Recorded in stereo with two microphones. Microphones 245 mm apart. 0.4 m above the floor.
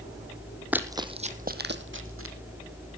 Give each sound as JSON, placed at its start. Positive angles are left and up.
{"t": 0.7, "sound": "running footsteps", "side_deg": -5, "distance_m": 1.1}